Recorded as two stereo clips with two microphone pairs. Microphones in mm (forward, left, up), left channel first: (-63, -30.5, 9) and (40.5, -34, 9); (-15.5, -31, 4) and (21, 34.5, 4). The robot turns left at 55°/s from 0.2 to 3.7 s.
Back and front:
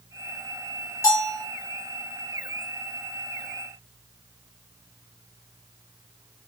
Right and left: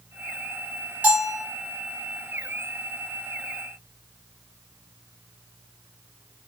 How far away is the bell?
About 2.5 m.